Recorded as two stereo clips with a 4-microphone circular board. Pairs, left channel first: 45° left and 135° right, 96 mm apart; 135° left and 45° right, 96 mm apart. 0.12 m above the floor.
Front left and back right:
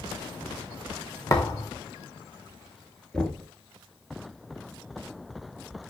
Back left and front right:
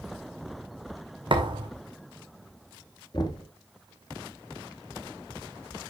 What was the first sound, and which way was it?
A thud, 5° right.